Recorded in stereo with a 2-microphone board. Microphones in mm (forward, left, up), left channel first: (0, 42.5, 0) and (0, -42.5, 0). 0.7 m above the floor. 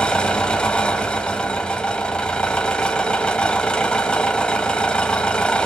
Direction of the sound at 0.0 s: 10° left (ahead or behind).